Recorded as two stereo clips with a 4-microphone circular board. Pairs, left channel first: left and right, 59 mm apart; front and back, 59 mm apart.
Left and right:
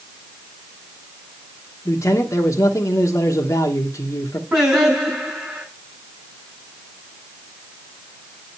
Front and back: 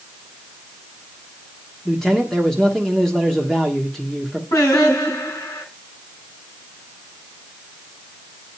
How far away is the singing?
About 6.5 m.